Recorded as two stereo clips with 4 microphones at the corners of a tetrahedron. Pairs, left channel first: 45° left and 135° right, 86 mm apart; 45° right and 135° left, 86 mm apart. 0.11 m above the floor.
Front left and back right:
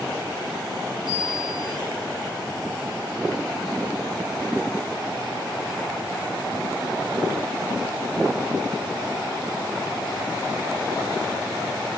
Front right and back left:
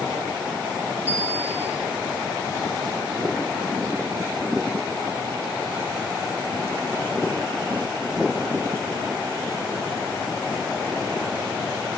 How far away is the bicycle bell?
About 9 m.